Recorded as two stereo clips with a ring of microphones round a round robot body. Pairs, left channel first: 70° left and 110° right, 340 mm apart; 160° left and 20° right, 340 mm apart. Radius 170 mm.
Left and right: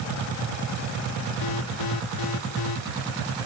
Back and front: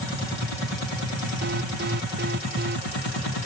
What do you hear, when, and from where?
1.4 s an alarm: 40° left